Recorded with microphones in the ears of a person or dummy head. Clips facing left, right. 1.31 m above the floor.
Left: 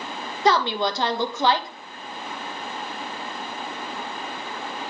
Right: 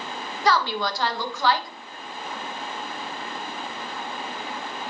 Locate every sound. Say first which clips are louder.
0.5 s a woman speaking: left 2 dB; 25° left (ahead or behind), 1.2 m